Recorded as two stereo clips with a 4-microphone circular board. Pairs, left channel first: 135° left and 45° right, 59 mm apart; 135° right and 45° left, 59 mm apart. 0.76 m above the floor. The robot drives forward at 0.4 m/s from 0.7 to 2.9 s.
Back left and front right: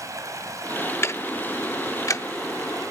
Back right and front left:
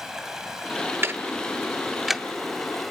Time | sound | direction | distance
0.0 | running water | 35° right | 4 m
1.0 | ticking | 95° left | 0.5 m